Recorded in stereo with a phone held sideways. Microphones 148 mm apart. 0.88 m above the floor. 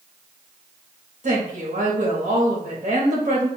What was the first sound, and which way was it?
A woman speaking, 55° right (ahead or behind).